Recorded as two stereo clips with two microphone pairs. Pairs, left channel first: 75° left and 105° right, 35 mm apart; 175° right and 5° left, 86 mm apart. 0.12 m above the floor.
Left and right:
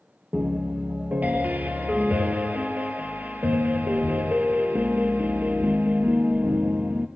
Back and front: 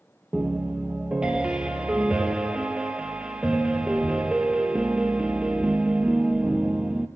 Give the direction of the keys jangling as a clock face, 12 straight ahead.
I don't hear keys jangling.